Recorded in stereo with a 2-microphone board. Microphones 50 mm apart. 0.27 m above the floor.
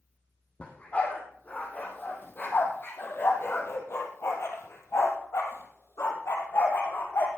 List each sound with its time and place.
0.6 s a dog barking: 25° left (ahead or behind), 4 m; by 7.3 s 80° left, 3.5 m